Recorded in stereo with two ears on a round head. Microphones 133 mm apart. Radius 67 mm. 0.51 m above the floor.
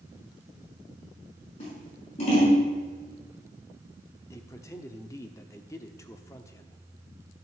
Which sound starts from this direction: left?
Scissors, at 1.6 s.